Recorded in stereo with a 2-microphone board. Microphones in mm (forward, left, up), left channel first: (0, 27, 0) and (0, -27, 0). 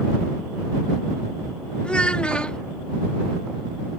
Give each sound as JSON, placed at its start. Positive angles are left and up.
{"t": 1.8, "sound": "a child speaking", "side_deg": 20}